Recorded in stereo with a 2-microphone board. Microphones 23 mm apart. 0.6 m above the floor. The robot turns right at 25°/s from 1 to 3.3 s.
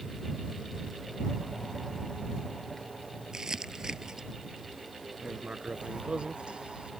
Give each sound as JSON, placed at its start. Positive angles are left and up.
{"t": 3.3, "sound": "crumpling", "side_deg": -25}
{"t": 5.2, "sound": "writing", "side_deg": -45}